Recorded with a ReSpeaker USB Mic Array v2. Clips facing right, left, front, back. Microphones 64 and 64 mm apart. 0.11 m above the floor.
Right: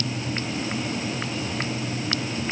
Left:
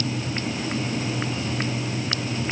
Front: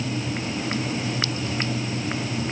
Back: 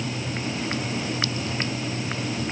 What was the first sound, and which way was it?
Only background noise.